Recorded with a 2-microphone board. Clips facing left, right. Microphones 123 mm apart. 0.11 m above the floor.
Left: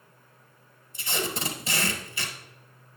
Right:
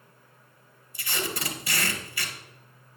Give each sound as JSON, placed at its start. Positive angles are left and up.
{"t": 0.9, "sound": "tape being pulled", "side_deg": 25, "distance_m": 1.5}